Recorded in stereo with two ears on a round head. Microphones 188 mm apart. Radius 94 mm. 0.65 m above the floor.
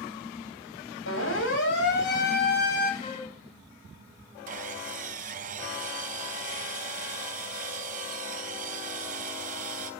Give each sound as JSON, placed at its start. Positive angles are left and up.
{"t": 1.1, "sound": "a siren", "side_deg": 65, "distance_m": 6.0}
{"t": 3.0, "sound": "a flute", "side_deg": 30, "distance_m": 6.5}
{"t": 4.5, "sound": "sawing", "side_deg": -40, "distance_m": 4.5}